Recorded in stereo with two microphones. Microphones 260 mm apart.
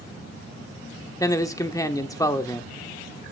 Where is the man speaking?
15° left (ahead or behind), 0.9 m.